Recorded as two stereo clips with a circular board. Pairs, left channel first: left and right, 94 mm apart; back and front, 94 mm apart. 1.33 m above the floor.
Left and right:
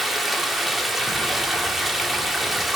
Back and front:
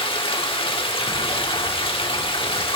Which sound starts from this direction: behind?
Running water, at 0.0 s.